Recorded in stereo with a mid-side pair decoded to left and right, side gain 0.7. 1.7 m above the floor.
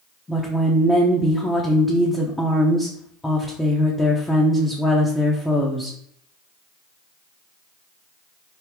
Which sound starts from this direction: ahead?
A woman speaking, at 0.3 s.